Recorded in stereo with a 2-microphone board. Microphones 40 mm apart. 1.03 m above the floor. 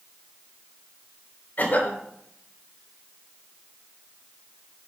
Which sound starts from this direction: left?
A cough, at 1.6 s.